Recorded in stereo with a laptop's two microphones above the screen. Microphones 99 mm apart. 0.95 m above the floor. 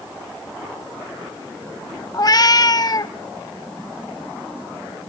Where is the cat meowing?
40° left (ahead or behind), 0.9 m.